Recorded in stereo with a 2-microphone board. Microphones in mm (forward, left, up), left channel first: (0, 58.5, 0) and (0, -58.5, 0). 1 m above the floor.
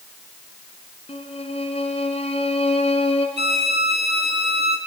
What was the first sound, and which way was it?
A violin, 60° left (ahead or behind).